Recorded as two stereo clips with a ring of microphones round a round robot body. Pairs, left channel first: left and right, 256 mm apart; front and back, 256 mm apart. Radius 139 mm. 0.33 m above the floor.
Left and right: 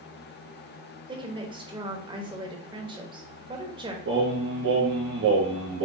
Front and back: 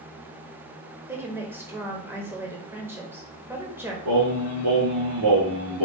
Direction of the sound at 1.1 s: 115° right.